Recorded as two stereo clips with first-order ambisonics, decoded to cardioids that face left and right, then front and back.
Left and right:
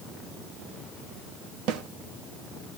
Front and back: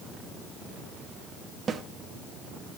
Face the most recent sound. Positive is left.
turn(degrees=-110)